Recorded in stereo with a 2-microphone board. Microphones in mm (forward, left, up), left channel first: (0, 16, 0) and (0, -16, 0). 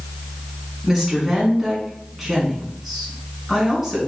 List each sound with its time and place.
0.8 s a woman speaking: centre (ahead or behind), 1.5 m